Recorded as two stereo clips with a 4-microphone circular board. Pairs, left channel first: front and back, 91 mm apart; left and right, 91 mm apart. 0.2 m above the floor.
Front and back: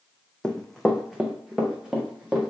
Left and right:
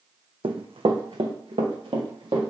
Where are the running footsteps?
80° right, 0.6 m; by 2.5 s 95° right, 1.8 m.